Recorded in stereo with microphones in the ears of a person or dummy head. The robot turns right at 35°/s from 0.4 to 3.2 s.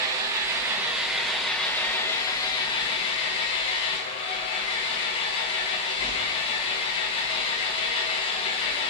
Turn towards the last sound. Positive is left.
turn(degrees=70)